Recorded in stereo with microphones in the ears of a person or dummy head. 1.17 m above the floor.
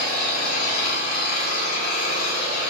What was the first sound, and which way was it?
An engine running, 55° left (ahead or behind).